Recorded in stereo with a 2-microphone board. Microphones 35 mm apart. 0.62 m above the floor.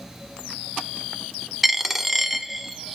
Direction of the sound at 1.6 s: 5° right (ahead or behind).